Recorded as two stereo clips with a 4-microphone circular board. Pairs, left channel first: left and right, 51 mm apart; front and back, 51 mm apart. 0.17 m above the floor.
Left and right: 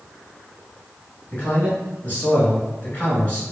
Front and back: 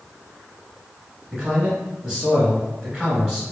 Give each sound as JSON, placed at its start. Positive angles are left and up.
{"t": 1.3, "sound": "a man speaking", "azimuth_deg": 105, "distance_m": 1.1}